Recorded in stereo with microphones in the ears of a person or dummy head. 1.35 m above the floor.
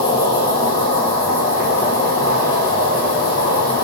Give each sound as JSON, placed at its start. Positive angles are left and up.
{"t": 0.0, "sound": "an insect", "side_deg": 50, "distance_m": 1.1}